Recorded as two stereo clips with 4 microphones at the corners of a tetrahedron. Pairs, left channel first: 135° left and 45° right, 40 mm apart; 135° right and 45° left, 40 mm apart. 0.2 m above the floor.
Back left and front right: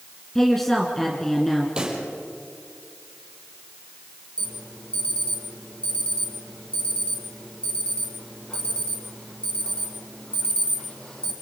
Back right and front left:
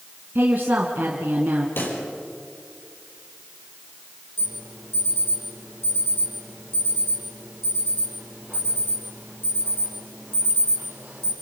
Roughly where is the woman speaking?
Ahead left.